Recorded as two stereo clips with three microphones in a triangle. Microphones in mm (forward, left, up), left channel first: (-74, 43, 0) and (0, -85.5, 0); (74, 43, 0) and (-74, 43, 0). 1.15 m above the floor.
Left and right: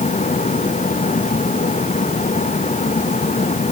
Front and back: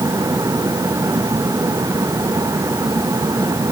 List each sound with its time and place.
Only background noise.